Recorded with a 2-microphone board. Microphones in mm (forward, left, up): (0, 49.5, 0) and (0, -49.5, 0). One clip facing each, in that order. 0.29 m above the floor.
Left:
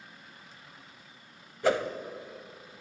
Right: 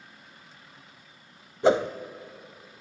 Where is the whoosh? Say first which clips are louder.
Right 5 dB; 25° right (ahead or behind), 0.5 m.